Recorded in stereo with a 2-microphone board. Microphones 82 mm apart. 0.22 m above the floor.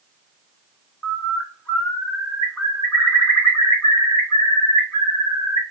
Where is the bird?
25° left (ahead or behind), 1.8 m.